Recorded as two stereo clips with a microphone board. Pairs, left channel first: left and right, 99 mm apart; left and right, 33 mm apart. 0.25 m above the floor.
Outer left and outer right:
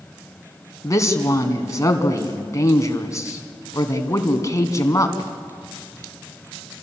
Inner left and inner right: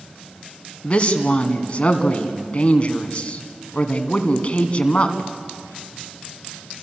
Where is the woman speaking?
35° left (ahead or behind), 2.5 m.